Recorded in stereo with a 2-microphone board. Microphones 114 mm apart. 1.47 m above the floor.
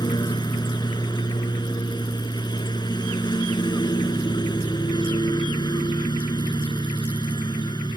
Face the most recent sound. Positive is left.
turn(degrees=40)  # may be behind; listen again after turning